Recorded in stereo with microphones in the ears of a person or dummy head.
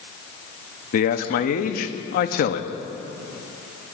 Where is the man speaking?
45° left (ahead or behind), 0.8 m.